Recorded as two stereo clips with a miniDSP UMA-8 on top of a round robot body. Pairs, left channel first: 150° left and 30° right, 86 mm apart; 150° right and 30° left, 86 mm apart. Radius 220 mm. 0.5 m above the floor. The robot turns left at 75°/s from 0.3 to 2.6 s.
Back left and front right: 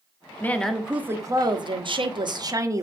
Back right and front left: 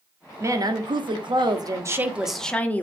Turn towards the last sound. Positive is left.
turn(degrees=-80)